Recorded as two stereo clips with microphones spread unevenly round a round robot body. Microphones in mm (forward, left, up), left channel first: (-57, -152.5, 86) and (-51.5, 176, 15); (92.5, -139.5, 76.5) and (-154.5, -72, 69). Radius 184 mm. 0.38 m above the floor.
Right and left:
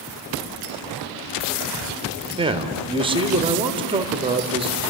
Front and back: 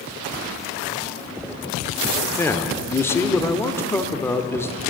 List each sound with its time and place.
2.4 s a man speaking: 60° left, 1.5 m